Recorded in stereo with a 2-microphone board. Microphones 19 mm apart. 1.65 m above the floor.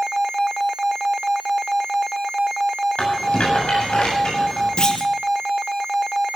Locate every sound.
3.0 s a rattle: 85° left, 7.5 m
4.8 s a clunk: 50° left (ahead or behind), 1.7 m